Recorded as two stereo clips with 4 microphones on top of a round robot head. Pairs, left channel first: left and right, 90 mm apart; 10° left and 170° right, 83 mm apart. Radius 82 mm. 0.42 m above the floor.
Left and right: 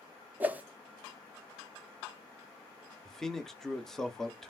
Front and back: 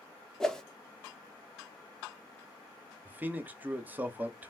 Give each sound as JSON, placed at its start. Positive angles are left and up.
{"t": 0.4, "sound": "a whoosh", "azimuth_deg": -60, "distance_m": 0.7}
{"t": 3.0, "sound": "a man speaking", "azimuth_deg": 165, "distance_m": 0.8}